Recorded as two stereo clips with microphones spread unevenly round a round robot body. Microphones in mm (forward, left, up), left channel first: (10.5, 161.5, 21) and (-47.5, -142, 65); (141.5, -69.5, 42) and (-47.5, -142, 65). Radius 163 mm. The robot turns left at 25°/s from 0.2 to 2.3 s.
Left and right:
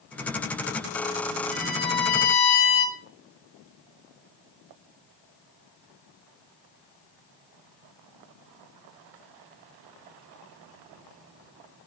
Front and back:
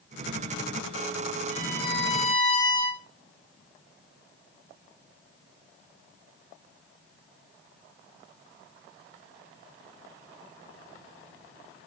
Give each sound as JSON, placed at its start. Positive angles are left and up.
{"t": 1.5, "sound": "a violin", "azimuth_deg": 85, "distance_m": 4.5}